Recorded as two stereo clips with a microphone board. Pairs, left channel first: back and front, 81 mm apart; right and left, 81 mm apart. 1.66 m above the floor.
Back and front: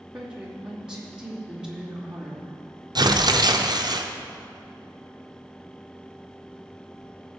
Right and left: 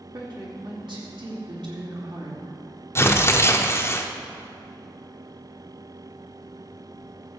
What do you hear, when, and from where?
0.1 s a woman speaking: 80° left, 3 m
3.0 s tearing paper: 30° right, 0.7 m